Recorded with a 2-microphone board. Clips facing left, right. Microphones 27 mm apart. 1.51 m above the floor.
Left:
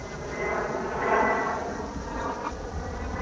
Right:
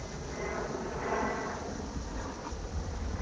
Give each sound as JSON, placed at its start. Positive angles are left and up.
{"t": 0.0, "sound": "an aircraft", "side_deg": 35}